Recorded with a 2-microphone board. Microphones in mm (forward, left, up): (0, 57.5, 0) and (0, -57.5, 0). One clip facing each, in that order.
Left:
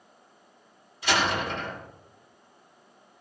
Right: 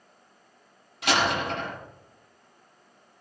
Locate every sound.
1.0 s a door slam: 80° right, 6.5 m